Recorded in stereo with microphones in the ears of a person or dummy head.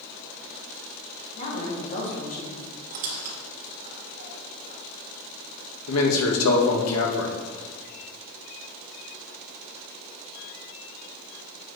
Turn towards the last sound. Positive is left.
turn(degrees=90)